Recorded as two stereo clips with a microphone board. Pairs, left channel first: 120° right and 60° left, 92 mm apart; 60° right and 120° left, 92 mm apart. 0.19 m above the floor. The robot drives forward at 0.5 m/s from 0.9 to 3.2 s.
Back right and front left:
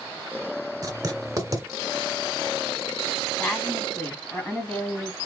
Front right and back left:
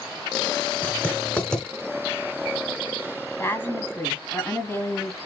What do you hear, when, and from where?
0.8 s writing: 15° left, 1.6 m; by 1.6 s 20° left, 1.3 m
3.4 s a woman speaking: 85° right, 1.4 m